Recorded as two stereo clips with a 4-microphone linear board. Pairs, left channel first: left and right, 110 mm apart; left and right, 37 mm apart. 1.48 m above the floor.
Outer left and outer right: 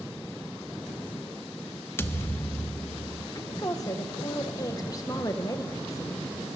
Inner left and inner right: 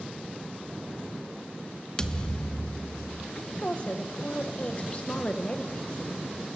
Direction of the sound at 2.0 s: 20° left (ahead or behind).